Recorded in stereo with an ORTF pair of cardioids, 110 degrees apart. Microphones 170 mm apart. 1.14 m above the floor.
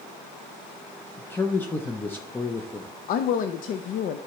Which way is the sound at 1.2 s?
10° left.